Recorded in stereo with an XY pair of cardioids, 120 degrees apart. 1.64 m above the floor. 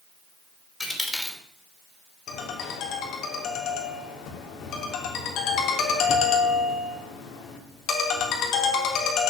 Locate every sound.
0.8 s a dropped coin: 15° left, 3 m
2.3 s a ringtone: 70° left, 3 m